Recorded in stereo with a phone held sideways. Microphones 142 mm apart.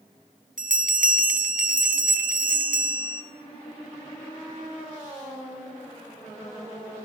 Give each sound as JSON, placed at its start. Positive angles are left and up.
{"t": 0.6, "sound": "a bell", "side_deg": -70, "distance_m": 0.6}